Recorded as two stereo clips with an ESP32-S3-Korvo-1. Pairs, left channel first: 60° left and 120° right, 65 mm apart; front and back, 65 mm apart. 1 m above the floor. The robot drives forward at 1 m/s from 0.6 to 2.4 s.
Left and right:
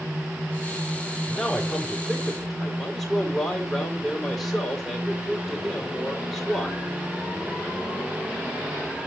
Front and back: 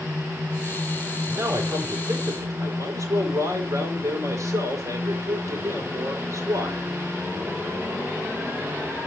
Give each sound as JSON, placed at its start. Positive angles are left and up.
{"t": 1.3, "sound": "a man speaking", "azimuth_deg": 140, "distance_m": 3.0}